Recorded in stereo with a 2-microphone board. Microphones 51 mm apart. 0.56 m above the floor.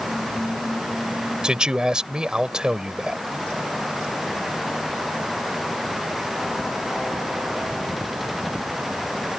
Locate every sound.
1.4 s a man speaking: 15° right (ahead or behind)